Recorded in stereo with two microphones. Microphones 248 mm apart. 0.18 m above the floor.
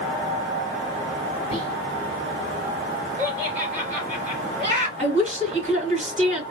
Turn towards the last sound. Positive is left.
turn(degrees=-30)  # may be behind; listen again after turning